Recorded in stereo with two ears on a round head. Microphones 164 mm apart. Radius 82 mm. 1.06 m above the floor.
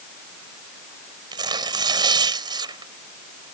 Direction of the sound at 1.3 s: 25° right (ahead or behind).